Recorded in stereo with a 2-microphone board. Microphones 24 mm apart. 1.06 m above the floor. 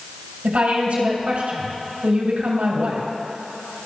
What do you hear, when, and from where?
0.4 s a woman speaking: 65° right (ahead or behind), 4.5 m